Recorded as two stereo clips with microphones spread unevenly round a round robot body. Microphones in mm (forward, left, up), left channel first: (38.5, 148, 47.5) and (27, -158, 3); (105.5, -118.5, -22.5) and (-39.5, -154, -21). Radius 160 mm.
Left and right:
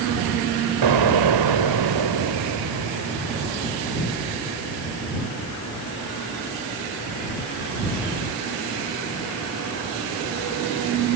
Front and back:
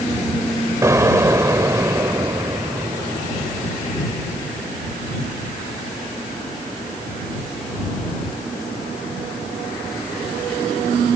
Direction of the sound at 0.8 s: 95° right.